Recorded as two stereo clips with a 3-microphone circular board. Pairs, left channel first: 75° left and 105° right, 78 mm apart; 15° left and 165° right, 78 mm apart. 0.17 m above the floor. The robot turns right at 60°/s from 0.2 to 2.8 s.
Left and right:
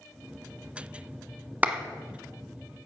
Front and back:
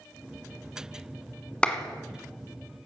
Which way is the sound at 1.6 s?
50° right.